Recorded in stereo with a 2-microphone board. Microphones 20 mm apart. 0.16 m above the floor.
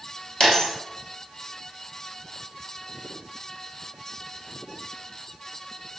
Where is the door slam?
No door slam in this recording.